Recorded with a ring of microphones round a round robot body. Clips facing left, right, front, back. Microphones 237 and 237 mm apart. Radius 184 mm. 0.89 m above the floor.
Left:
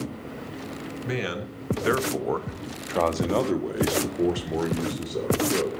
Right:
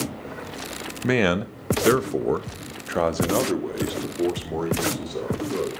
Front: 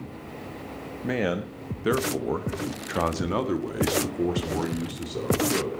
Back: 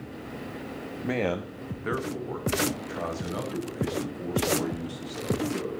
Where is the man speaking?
90° right, 1.4 m; by 5.7 s 15° left, 4 m.